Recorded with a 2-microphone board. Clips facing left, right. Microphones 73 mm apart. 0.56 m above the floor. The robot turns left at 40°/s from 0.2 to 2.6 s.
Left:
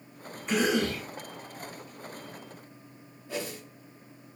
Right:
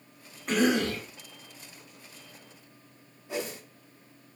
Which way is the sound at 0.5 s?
50° right (ahead or behind).